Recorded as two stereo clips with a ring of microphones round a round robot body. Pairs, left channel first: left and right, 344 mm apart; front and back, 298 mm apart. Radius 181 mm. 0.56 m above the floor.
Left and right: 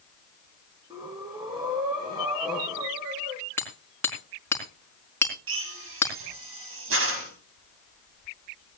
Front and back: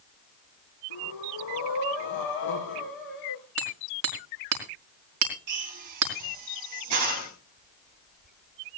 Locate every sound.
0.9 s breathing: 10° right, 5 m
3.6 s hammering: 175° left, 3.5 m
5.5 s a drill: 145° right, 3.5 m